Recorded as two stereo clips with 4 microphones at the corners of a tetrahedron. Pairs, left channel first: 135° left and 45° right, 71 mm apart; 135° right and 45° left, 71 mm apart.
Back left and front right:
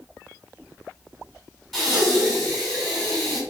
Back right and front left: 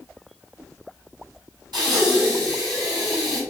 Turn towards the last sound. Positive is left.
turn(degrees=50)